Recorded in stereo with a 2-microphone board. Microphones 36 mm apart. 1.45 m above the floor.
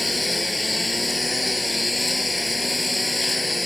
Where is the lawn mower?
Centre (ahead or behind).